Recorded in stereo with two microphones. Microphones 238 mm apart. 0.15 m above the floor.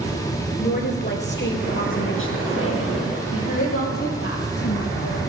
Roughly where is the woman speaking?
Left.